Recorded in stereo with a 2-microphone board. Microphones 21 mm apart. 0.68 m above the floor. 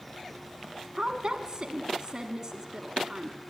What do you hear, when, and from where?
0.9 s a woman speaking: 45° right (ahead or behind), 1.3 m